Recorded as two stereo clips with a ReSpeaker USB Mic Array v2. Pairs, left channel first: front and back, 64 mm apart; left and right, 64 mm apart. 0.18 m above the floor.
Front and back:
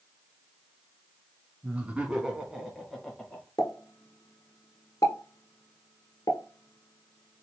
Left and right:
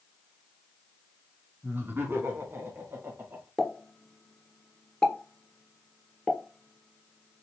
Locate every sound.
1.6 s laughter: 125° right, 1.7 m; by 3.5 s 70° right, 1.7 m
3.6 s a pop: 10° left, 1.1 m